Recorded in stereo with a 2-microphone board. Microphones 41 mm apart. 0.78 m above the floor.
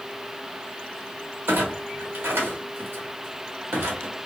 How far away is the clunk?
About 1.1 m.